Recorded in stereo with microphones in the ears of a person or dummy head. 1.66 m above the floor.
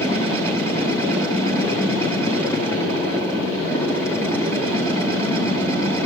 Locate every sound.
0.0 s a machine running: 10° left (ahead or behind), 1.6 m